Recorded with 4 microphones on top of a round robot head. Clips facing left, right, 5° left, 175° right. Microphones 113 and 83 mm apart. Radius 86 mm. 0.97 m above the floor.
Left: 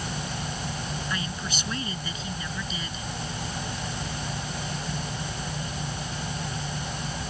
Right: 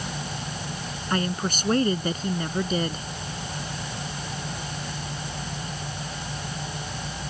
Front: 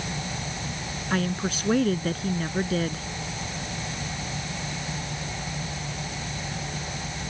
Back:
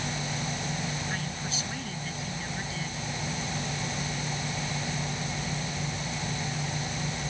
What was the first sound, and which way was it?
A woman speaking, 45° right.